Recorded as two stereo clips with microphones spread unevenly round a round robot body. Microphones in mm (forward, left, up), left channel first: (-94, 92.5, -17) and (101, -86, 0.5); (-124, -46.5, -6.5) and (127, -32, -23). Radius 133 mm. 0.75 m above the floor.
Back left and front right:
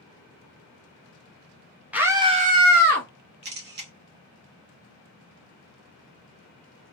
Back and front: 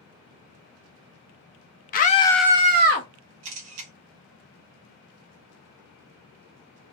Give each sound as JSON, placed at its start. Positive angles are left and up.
{"t": 1.9, "sound": "a scream", "azimuth_deg": -130, "distance_m": 0.8}
{"t": 3.4, "sound": "a camera shutter", "azimuth_deg": 10, "distance_m": 0.9}